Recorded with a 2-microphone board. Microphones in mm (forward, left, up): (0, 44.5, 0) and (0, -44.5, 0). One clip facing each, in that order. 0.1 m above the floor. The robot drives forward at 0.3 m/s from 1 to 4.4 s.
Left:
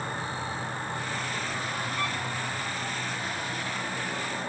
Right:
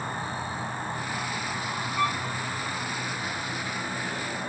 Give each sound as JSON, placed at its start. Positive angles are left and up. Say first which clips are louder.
{"t": 0.0, "sound": "an insect", "louder": "right 1 dB", "side_deg": -40, "distance_m": 6.5}
{"t": 2.0, "sound": "a violin", "louder": "right 8 dB", "side_deg": -10, "distance_m": 9.5}